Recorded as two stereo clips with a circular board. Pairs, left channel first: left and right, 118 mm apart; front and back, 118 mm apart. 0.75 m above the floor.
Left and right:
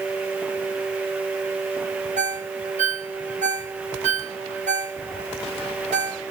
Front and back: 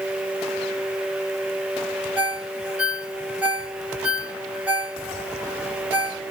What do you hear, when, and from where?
2.2 s a ringtone: 100° right, 1.4 m